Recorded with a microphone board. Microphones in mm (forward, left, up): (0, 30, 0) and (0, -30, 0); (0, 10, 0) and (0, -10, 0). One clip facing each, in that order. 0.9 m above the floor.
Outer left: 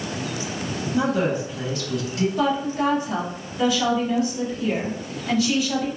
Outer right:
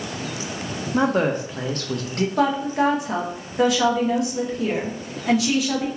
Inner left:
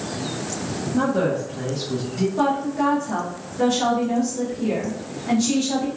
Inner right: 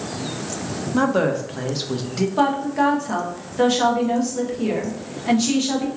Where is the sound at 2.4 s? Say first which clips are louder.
Outer right 4 dB, inner right 3 dB; 60° right (ahead or behind), 0.9 m.